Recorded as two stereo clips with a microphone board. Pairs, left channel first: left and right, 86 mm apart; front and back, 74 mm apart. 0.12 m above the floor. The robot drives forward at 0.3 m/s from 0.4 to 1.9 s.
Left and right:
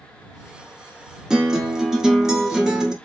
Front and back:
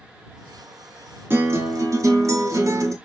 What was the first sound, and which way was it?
A guitar, 165° right.